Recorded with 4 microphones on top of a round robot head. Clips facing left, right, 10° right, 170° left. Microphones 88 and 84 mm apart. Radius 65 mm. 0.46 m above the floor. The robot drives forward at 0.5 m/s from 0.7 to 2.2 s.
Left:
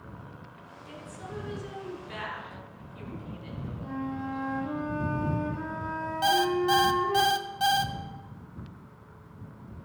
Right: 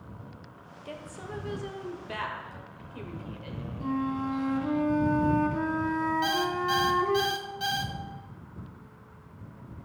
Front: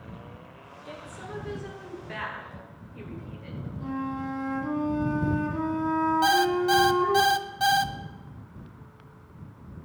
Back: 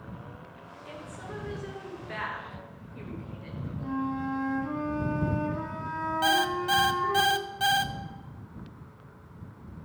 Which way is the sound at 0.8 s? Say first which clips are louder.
Right 2 dB, front 1 dB; 80° right.